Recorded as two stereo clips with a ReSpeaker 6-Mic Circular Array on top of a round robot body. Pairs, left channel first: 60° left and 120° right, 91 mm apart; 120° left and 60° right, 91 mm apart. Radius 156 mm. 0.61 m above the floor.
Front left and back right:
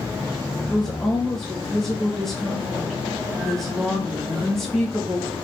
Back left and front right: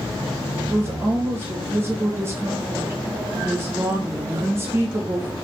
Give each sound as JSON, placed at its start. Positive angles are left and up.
{"t": 0.7, "sound": "a woman speaking", "azimuth_deg": -25, "distance_m": 1.2}